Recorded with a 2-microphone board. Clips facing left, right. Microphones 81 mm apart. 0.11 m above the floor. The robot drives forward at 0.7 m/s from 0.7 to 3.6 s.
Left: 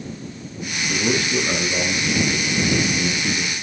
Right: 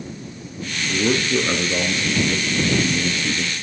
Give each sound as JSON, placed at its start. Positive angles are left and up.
{"t": 0.9, "sound": "a man speaking", "side_deg": -30, "distance_m": 1.6}